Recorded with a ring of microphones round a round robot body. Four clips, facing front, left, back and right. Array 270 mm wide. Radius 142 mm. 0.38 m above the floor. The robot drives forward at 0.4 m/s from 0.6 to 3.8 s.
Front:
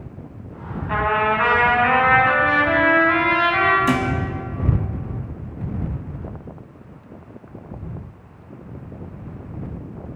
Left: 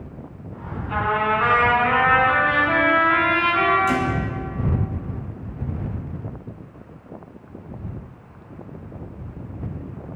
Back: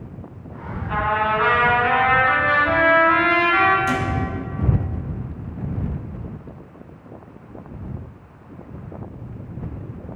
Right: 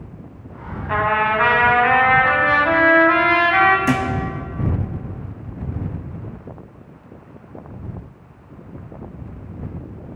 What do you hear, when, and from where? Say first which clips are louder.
0.9 s a trumpet: right 3 dB, front 1 dB; 70° right, 2.5 m; by 3.8 s 100° right, 2 m
3.9 s a thud: right 2 dB, front 3 dB; 55° right, 1.3 m